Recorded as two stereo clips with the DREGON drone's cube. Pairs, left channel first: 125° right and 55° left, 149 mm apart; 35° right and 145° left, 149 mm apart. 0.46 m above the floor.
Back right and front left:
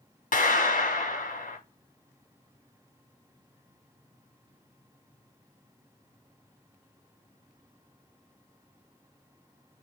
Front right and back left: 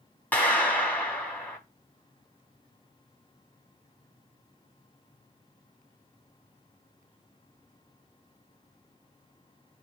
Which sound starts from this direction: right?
A clap, at 0.3 s.